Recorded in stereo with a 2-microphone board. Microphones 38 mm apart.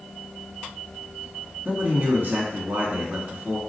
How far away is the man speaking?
About 1.8 m.